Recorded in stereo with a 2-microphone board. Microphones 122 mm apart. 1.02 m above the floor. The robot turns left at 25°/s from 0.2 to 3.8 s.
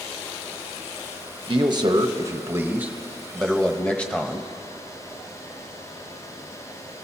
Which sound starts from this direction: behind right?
A man speaking, at 1.5 s.